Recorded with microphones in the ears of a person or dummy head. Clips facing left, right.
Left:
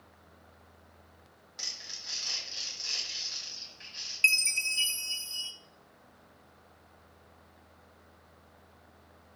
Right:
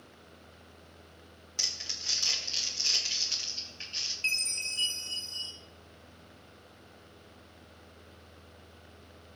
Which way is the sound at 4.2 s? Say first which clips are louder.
Left 7 dB; 25° left (ahead or behind).